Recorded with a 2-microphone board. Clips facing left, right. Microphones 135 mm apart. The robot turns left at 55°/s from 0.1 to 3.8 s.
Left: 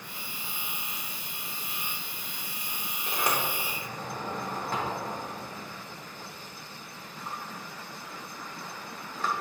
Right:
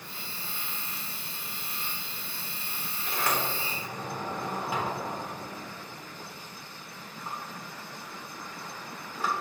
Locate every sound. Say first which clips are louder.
3.1 s a sliding door: even; 30° left (ahead or behind), 1.5 m; by 9.3 s 10° right (ahead or behind), 1.5 m